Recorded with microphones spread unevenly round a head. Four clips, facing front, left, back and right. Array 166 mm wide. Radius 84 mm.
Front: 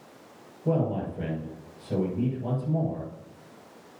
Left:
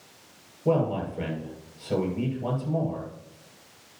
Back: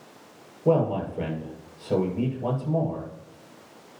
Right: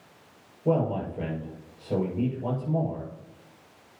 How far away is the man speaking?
About 7 m.